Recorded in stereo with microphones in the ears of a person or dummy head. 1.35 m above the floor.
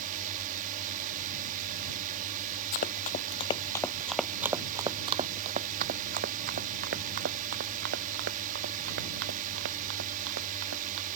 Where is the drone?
45° right (ahead or behind).